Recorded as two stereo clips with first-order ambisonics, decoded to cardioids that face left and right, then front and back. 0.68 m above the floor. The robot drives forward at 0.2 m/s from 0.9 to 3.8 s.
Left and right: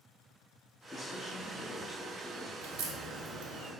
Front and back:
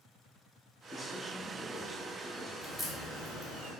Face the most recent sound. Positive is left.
turn(degrees=-105)